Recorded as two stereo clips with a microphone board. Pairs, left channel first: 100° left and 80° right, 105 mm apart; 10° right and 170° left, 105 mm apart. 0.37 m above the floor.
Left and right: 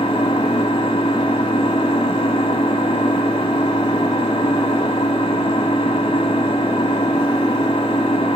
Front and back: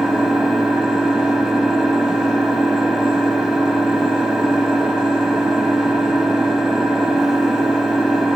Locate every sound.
0.0 s an engine running: 85° left, 0.9 m